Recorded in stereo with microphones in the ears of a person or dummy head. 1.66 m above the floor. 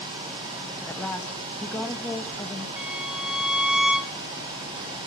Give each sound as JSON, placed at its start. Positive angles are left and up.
{"t": 0.9, "sound": "a woman speaking", "side_deg": 5, "distance_m": 2.0}
{"t": 2.8, "sound": "a violin", "side_deg": -5, "distance_m": 0.7}